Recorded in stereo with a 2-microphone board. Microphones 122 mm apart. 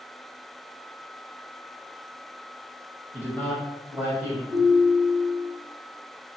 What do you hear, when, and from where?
3.1 s a man speaking: 20° left (ahead or behind), 1.0 m; by 4.4 s 25° right (ahead or behind), 1.2 m
4.5 s a ringtone: 5° left (ahead or behind), 1.2 m